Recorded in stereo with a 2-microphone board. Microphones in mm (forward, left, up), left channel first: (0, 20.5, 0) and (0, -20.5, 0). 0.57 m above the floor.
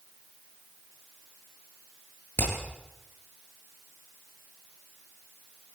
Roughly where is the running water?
No running water in this recording.